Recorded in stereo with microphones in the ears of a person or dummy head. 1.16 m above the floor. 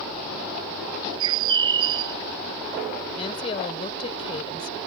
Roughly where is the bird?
Right.